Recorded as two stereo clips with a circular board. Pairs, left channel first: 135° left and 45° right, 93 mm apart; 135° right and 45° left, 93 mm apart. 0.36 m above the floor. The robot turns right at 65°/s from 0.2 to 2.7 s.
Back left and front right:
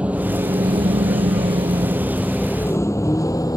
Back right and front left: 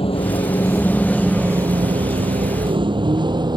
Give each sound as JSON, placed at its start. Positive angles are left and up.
{"t": 0.0, "sound": "a vehicle", "azimuth_deg": -120}